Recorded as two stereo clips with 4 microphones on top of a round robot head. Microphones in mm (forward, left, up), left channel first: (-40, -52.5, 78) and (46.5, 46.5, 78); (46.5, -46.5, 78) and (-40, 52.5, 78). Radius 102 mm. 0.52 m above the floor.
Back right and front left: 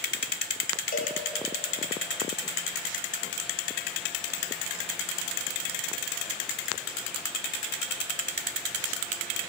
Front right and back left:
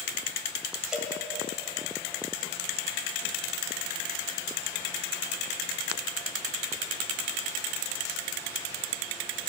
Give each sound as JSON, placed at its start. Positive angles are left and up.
{"t": 0.9, "sound": "a cowbell", "azimuth_deg": -140, "distance_m": 1.7}